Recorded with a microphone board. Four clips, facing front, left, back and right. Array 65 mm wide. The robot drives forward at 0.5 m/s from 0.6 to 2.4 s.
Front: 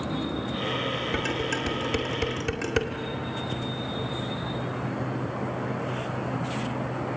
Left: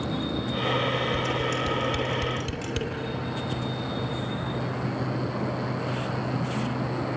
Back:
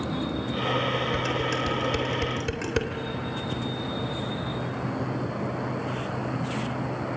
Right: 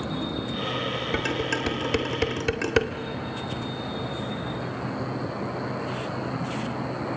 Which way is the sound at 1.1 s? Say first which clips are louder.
Even, back 1 dB; 70° right.